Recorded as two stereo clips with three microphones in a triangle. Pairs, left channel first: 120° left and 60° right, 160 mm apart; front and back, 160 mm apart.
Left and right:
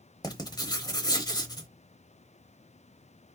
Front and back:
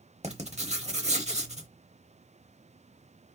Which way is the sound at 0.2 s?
175° left.